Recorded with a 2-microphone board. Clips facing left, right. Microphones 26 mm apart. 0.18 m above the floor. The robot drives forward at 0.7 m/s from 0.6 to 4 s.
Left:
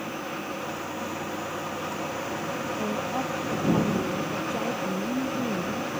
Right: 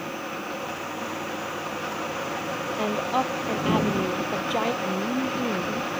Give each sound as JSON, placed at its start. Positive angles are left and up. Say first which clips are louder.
{"t": 2.8, "sound": "a woman speaking", "louder": "right 7 dB", "side_deg": -55}
{"t": 4.8, "sound": "a woman speaking", "louder": "right 2 dB", "side_deg": -45}